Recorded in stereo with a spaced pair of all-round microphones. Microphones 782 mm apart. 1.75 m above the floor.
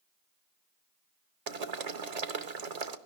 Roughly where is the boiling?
Right.